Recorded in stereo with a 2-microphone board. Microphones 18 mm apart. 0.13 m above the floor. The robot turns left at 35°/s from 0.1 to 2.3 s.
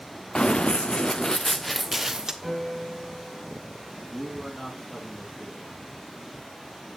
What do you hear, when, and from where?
0.3 s running footsteps: 55° left (ahead or behind), 0.6 m; by 2.3 s 30° right (ahead or behind), 0.9 m
2.4 s a piano: 30° left (ahead or behind), 4 m
4.1 s a man speaking: 60° left (ahead or behind), 3.5 m